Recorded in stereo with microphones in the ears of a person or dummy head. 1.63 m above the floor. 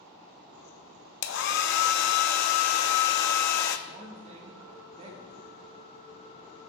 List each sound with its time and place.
1.2 s a hair dryer: 60° left (ahead or behind), 0.6 m
3.9 s a man speaking: 30° right (ahead or behind), 1.8 m